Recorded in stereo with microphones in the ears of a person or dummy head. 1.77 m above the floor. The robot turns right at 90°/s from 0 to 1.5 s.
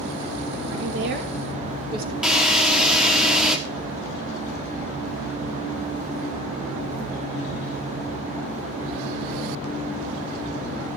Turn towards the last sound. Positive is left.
turn(degrees=0)  # may be behind; listen again after turning